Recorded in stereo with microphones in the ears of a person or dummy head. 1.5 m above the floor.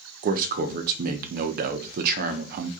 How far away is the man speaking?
About 0.5 m.